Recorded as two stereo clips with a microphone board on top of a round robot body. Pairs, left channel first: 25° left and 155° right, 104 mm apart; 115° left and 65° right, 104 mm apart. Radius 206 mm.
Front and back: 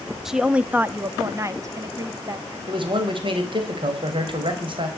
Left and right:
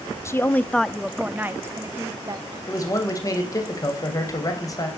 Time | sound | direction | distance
0.2 | a woman speaking | 120° left | 1.0 m
2.7 | a man speaking | 165° left | 3.5 m